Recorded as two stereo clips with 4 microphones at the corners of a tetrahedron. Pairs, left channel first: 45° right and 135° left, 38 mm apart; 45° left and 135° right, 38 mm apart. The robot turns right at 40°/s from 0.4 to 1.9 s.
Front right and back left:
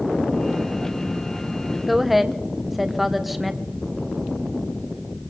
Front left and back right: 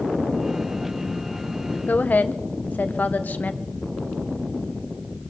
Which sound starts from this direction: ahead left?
A woman speaking, at 1.9 s.